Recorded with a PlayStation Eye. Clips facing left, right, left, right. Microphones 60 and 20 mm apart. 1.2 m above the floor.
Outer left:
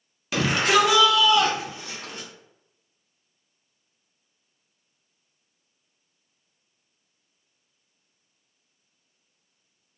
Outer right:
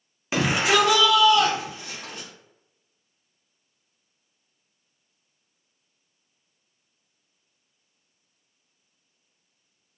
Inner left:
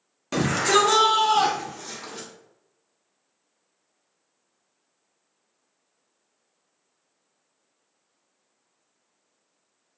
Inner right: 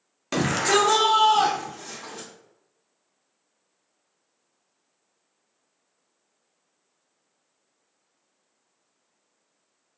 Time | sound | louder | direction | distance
0.3 | a shout | even, inner left 1 dB | 25° right (ahead or behind) | 0.5 m